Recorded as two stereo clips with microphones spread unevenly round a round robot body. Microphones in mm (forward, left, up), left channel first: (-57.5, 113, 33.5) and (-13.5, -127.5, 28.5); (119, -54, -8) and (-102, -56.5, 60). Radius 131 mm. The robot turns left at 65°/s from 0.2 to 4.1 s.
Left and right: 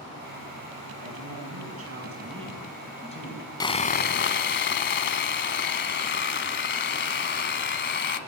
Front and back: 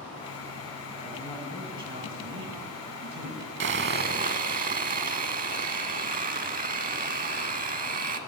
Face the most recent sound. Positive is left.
turn(degrees=140)